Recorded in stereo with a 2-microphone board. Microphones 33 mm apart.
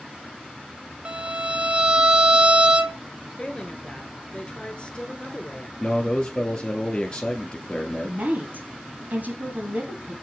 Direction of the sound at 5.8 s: 25° left (ahead or behind).